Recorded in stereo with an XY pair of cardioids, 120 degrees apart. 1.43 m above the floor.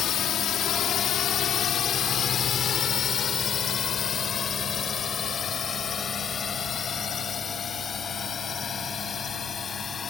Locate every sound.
0.0 s a drone: 65° left; by 10.1 s 40° left